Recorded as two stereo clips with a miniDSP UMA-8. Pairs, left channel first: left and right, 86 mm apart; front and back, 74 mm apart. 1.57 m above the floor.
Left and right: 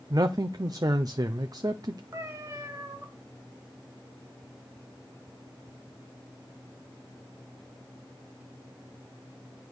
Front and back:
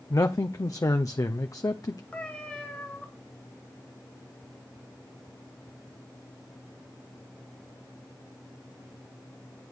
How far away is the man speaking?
About 0.5 m.